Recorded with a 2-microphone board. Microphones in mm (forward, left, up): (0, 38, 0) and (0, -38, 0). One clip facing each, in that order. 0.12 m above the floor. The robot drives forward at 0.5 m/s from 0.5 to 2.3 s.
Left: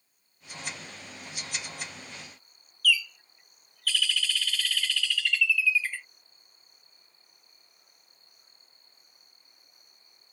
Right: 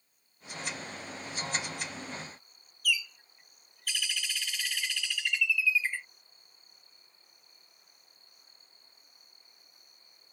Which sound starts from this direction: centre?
A bird, at 2.8 s.